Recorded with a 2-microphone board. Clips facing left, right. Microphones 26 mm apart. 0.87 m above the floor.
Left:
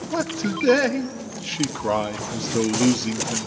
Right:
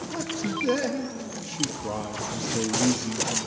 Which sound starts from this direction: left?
A man speaking, at 0.1 s.